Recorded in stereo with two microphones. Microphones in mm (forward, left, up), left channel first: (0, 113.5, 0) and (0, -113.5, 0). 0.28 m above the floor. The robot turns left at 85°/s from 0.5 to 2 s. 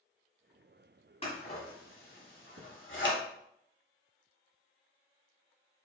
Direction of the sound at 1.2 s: 25° left (ahead or behind).